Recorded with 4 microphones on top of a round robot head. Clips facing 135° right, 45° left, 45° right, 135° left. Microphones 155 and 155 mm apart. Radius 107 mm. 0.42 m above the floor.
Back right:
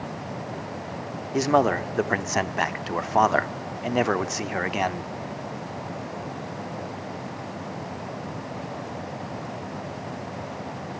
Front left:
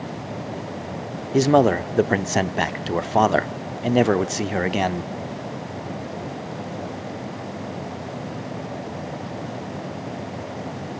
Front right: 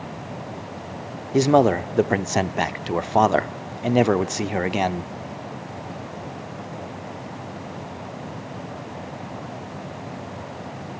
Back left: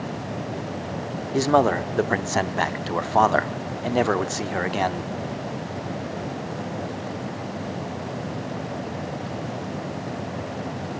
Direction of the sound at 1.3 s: 10° left.